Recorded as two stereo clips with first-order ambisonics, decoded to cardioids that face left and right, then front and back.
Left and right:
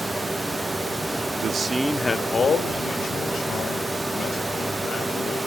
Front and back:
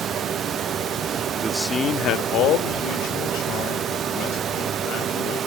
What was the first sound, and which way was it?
A man speaking, 120° right.